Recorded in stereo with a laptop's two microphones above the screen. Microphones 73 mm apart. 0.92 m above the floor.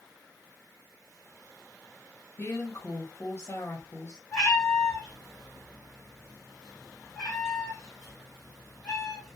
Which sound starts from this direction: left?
A woman speaking, at 2.4 s.